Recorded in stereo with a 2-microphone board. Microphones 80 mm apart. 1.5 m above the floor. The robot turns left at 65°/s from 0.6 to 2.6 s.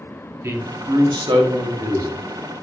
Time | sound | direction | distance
0.4 | a man speaking | 35° right | 0.7 m